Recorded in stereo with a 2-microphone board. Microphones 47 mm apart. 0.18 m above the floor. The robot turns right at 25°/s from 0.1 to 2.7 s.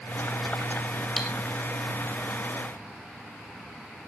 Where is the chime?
No chime in this recording.